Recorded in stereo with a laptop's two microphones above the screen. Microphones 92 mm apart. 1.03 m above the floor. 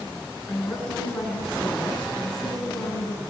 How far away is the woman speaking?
About 8 m.